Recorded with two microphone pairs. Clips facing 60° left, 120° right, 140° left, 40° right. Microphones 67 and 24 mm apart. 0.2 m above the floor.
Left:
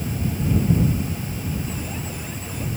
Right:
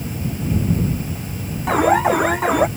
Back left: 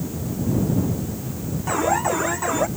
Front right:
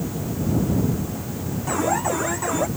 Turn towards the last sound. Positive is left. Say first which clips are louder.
# right 17 dB, back left 2 dB
turn(degrees=-140)